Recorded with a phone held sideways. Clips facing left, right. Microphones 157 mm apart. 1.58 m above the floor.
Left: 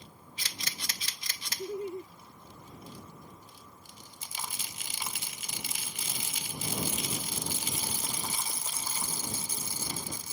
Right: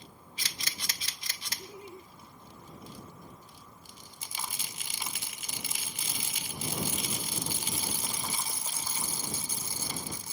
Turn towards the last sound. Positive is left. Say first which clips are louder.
# left 13 dB
turn(degrees=50)  # may be behind; listen again after turning